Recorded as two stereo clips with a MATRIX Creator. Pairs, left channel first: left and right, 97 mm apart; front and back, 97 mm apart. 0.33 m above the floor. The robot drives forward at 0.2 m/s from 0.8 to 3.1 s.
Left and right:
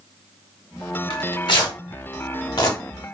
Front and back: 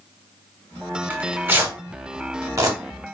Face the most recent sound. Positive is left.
turn(degrees=135)